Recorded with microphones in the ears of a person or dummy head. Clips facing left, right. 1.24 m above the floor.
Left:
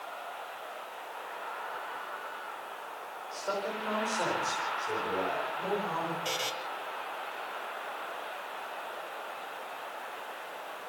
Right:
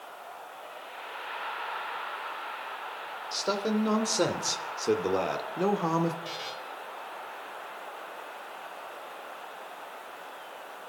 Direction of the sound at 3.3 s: 50° right (ahead or behind).